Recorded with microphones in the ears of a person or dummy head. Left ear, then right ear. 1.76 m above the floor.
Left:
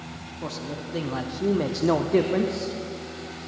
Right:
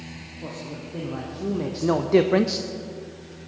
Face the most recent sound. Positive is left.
turn(degrees=-50)  # may be behind; listen again after turning